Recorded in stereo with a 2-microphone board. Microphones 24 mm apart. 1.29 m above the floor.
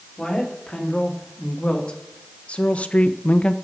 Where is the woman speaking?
40° left (ahead or behind), 3.5 m.